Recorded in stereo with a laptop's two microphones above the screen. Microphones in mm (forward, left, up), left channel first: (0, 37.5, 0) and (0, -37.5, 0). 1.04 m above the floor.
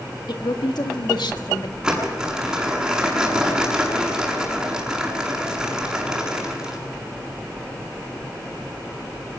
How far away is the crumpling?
About 7 m.